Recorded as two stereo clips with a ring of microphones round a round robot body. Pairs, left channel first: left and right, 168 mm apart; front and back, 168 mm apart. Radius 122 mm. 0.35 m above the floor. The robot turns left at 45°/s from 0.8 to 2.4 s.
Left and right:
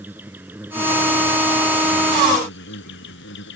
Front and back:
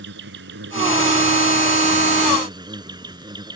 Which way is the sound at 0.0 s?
170° right.